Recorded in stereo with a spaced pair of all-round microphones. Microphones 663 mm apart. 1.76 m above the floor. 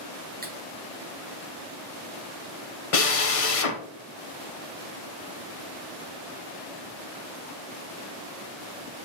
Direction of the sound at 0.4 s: 15° right (ahead or behind).